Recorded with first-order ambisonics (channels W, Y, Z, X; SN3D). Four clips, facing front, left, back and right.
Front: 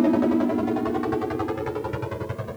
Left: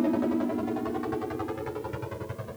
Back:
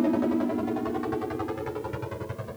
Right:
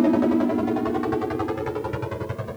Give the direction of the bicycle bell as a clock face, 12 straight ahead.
No bicycle bell in this recording.